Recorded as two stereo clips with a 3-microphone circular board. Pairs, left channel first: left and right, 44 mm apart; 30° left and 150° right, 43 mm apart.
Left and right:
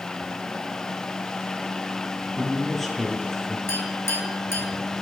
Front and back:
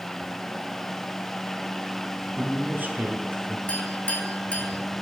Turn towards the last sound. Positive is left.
turn(degrees=85)